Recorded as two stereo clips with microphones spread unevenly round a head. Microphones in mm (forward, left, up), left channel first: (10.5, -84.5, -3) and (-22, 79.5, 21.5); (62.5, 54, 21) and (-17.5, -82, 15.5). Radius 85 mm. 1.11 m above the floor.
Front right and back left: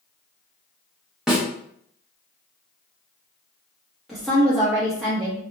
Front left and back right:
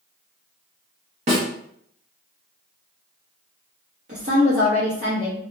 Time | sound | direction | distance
1.3 | a snare drum | 175° right | 1.0 m
4.1 | a woman speaking | 170° right | 1.2 m